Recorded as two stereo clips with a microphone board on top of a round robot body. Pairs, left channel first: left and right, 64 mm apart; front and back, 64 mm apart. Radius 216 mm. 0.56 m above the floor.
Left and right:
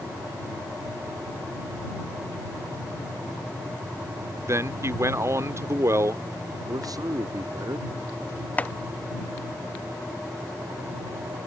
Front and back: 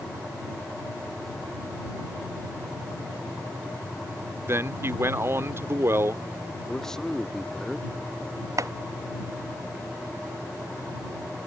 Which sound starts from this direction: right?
A man speaking, at 6.7 s.